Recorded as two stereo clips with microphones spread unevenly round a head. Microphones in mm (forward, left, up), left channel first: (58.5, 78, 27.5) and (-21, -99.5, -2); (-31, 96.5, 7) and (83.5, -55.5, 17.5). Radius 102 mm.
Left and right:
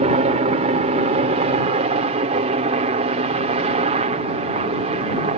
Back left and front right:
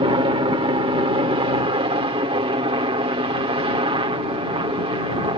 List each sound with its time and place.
0.0 s a helicopter: 100° right